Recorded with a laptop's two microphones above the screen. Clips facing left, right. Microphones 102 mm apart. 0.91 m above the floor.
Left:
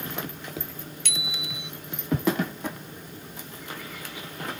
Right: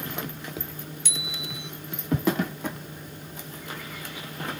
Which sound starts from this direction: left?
A bicycle bell, at 1.1 s.